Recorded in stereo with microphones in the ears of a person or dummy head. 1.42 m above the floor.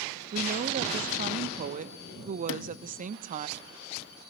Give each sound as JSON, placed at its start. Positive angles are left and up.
{"t": 0.3, "sound": "a woman speaking", "side_deg": -40, "distance_m": 1.2}
{"t": 2.5, "sound": "a sliding door", "side_deg": 70, "distance_m": 1.3}